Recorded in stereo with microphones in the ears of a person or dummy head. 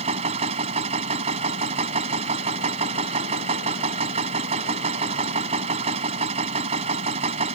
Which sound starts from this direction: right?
A machine running, at 0.0 s.